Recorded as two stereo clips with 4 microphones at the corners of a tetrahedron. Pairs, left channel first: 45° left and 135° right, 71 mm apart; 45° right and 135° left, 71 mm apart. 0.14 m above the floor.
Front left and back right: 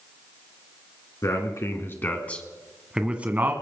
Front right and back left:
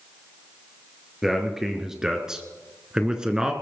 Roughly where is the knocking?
I don't hear knocking.